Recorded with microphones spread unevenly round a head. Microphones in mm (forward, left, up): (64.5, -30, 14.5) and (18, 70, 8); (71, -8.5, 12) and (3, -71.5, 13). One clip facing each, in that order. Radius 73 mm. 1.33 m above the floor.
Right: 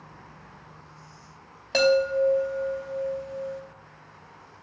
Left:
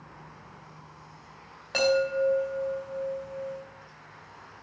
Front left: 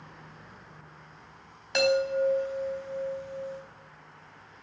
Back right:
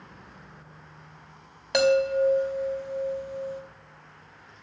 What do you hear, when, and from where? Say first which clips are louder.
1.7 s a chime: right 3 dB, back right 4 dB; 130° right, 3 m